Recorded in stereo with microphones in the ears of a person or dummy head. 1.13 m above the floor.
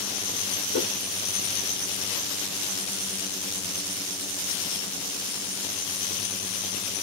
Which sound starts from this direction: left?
A whoosh, at 0.7 s.